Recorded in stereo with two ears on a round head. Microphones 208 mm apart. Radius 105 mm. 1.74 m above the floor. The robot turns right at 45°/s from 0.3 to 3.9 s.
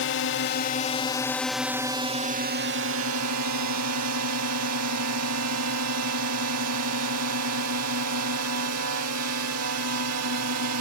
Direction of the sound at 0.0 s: 125° left.